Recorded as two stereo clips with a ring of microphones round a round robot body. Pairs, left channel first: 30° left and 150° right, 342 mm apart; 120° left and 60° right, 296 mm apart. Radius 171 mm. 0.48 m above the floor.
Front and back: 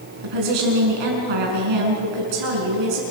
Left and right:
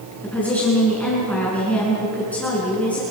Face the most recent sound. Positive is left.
turn(degrees=-155)